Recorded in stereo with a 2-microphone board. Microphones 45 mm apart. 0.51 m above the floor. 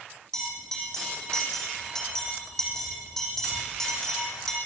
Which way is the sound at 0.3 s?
10° left (ahead or behind).